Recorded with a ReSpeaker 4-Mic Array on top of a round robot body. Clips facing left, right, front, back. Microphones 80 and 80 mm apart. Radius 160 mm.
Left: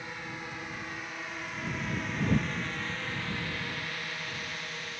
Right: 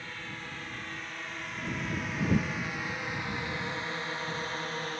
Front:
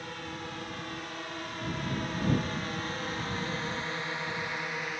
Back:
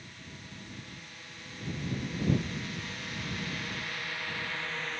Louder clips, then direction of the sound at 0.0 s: Left 2 dB, front 10 dB; 15° left.